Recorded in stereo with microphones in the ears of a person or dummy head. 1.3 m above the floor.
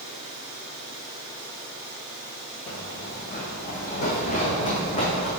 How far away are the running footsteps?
About 1.7 m.